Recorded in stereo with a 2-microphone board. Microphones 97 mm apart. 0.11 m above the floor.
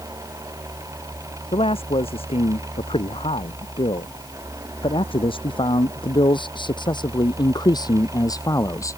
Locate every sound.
1.5 s a man speaking: 75° left (ahead or behind); by 9.0 s 30° left (ahead or behind)